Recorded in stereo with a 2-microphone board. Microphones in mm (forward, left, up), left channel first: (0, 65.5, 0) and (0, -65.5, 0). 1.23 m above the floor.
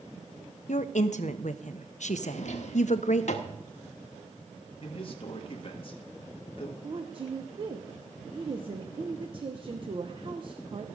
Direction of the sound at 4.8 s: 45° left (ahead or behind).